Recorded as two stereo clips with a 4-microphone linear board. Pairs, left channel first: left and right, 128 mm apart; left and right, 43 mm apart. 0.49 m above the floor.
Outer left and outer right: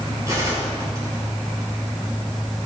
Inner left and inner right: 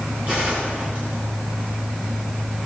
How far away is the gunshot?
About 5.5 m.